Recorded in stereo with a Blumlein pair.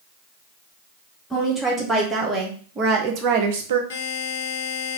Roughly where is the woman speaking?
Ahead.